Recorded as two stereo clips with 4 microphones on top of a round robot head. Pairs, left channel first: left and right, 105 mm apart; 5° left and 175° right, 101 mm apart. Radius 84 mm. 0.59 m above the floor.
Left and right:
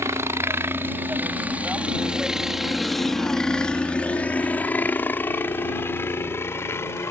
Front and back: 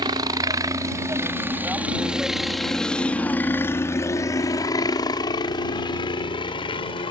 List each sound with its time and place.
0.0 s a helicopter: 150° right; by 7.1 s 30° left